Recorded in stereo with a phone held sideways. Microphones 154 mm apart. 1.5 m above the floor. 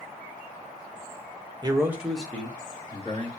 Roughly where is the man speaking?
Right.